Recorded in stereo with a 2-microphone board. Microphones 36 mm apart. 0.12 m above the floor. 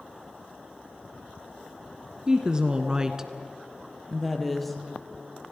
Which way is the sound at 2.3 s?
20° right (ahead or behind).